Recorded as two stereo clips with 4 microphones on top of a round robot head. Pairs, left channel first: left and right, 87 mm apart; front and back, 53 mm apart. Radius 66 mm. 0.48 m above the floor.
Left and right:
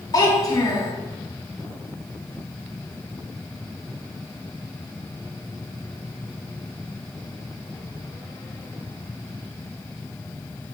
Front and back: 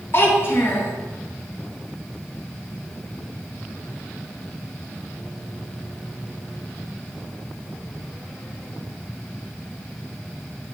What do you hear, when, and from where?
0.1 s a child speaking: 45° left, 2.5 m